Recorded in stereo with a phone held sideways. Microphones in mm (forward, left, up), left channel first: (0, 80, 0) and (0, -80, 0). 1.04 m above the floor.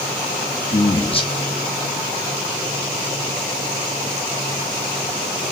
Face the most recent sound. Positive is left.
turn(degrees=35)  # may be behind; listen again after turning